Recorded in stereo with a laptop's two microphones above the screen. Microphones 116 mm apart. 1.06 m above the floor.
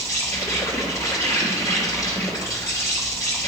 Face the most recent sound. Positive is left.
turn(degrees=25)  # may be behind; listen again after turning